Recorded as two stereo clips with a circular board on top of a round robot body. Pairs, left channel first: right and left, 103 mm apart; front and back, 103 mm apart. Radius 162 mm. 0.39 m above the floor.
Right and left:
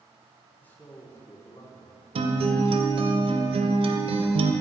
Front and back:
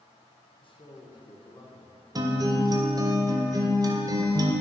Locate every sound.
0.6 s a man speaking: 15° right, 1.5 m; by 2.0 s 55° right, 1.4 m
2.1 s a guitar: 125° left, 0.6 m